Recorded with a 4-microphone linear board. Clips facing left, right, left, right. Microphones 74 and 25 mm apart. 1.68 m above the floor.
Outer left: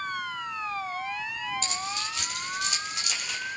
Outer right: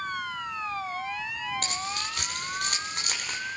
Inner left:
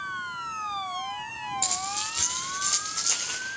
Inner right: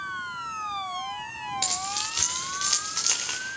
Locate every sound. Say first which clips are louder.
1.6 s keys jangling: even, inner right 3 dB; 55° right (ahead or behind), 6 m; by 3.4 s 45° right (ahead or behind), 5 m